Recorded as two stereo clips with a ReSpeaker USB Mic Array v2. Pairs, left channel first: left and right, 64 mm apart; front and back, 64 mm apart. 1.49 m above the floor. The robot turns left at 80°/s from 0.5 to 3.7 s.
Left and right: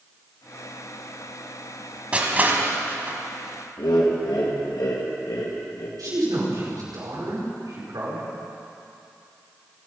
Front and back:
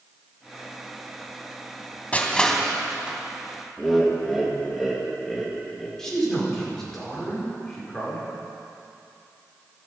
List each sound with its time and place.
2.1 s crushing: 40° right, 1.5 m; by 3.2 s 125° right, 1.5 m
3.8 s laughter: 90° left, 1.7 m
6.0 s a man speaking: 80° right, 5.5 m